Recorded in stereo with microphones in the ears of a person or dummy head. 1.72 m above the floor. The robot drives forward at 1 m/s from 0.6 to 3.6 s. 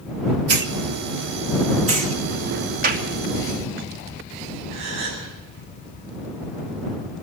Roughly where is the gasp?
Right.